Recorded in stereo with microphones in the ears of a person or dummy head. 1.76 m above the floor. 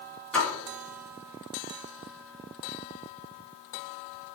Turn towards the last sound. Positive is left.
turn(degrees=5)  # may be behind; listen again after turning